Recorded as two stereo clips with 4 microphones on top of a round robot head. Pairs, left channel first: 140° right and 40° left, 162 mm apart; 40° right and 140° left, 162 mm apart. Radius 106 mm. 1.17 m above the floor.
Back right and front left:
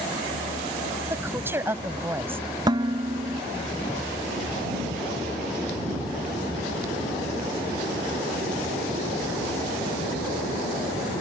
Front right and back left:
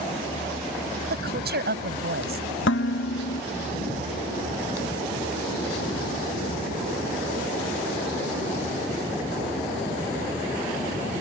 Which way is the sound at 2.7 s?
30° right.